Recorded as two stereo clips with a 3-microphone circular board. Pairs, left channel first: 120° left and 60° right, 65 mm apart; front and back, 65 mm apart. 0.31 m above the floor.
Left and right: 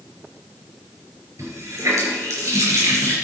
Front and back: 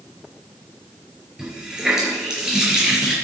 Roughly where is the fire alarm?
No fire alarm in this recording.